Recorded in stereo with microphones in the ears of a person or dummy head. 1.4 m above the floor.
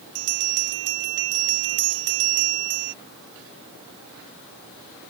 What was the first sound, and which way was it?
A bell, 60° right (ahead or behind).